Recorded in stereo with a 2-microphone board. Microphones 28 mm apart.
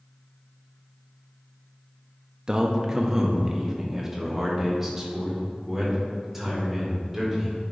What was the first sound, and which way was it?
A man speaking, 25° right (ahead or behind).